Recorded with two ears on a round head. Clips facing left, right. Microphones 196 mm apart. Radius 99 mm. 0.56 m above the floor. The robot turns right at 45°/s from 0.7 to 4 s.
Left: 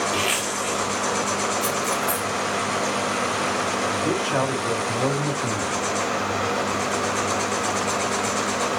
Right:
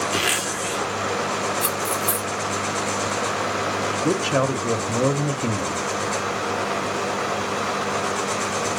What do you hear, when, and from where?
0.1 s a zipper: 85° right, 2 m; by 0.9 s 80° right, 2 m
1.6 s cutlery clinking: 60° right (ahead or behind), 0.8 m; by 2.3 s 35° right (ahead or behind), 0.8 m
3.9 s a man speaking: 35° right (ahead or behind), 0.9 m